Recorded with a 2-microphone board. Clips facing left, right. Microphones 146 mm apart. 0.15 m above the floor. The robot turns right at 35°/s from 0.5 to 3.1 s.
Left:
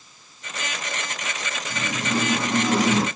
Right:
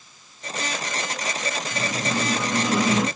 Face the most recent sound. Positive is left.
turn(degrees=110)